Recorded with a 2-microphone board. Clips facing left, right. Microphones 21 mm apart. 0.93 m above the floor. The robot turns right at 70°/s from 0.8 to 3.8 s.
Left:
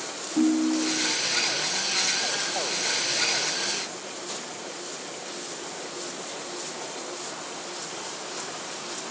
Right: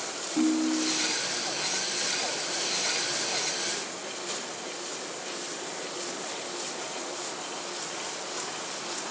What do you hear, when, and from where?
0.4 s a ringtone: 20° left (ahead or behind), 0.5 m; by 1.1 s 40° left (ahead or behind), 0.5 m